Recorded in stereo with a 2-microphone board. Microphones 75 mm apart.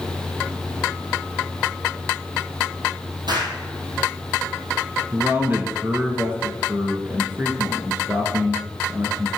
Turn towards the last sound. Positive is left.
turn(degrees=-25)  # may be behind; listen again after turning